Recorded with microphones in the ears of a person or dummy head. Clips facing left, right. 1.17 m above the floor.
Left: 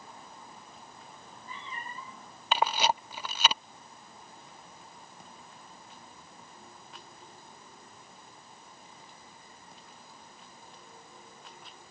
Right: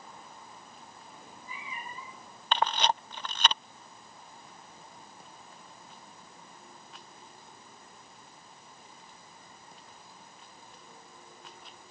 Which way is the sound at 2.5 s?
5° left (ahead or behind).